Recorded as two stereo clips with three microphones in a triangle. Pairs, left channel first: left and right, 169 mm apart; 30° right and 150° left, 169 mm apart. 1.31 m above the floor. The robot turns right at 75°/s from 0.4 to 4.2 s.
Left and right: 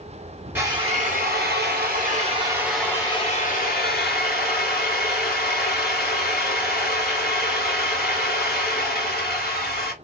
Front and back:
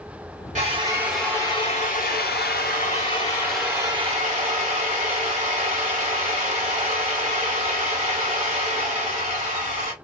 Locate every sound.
0.6 s a drill: 165° right, 1.4 m; by 9.9 s 105° left, 1.4 m